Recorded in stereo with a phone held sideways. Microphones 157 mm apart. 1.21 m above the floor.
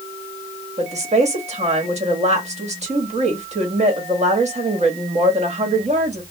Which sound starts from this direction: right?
A woman speaking, at 0.8 s.